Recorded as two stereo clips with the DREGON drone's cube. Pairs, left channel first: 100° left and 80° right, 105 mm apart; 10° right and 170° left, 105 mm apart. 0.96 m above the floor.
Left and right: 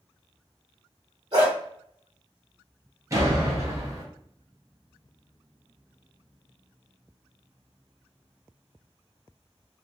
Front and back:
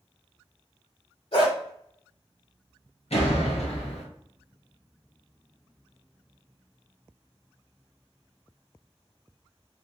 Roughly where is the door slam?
Ahead.